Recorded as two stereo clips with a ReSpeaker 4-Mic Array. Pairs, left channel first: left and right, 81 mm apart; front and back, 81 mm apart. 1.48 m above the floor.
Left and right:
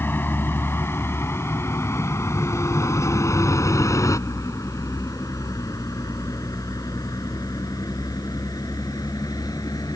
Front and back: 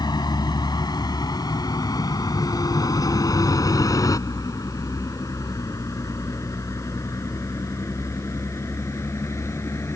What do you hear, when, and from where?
0.0 s a vehicle: 25° left; by 10.0 s 55° left